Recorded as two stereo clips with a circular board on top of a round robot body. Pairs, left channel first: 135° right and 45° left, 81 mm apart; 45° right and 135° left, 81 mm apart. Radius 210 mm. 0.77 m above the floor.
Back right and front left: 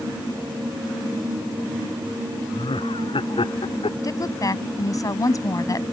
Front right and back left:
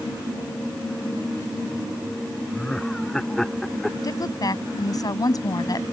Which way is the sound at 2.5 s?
125° right.